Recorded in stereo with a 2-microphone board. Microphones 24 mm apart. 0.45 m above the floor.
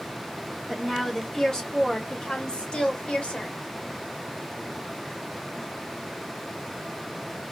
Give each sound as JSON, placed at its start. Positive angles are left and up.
{"t": 0.7, "sound": "a woman speaking", "side_deg": 15, "distance_m": 1.7}